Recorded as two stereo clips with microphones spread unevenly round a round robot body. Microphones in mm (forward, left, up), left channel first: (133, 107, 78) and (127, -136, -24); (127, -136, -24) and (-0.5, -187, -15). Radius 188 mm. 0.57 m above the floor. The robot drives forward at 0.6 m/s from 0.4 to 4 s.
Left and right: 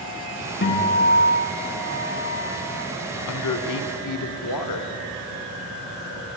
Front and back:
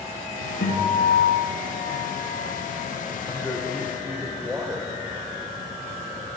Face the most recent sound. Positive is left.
turn(degrees=115)